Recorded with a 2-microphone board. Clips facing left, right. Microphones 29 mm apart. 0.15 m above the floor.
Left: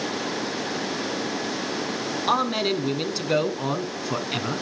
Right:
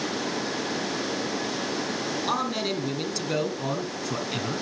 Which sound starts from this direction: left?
A man speaking, at 2.3 s.